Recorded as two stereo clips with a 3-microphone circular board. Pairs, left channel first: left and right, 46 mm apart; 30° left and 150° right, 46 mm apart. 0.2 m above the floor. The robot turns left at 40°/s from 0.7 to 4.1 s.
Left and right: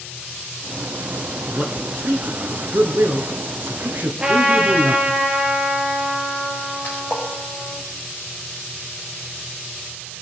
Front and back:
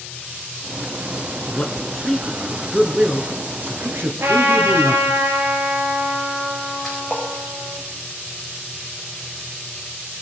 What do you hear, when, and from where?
1.5 s a man speaking: 30° right, 2 m; by 5.0 s 135° right, 2 m
4.2 s a trumpet: 160° right, 2.5 m
6.8 s a splash: 120° left, 7.5 m